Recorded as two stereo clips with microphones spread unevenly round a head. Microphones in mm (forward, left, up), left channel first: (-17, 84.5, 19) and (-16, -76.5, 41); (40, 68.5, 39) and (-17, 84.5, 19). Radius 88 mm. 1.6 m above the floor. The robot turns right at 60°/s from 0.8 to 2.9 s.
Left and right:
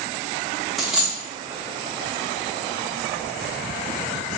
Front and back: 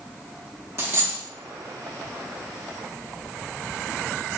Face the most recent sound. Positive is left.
turn(degrees=-35)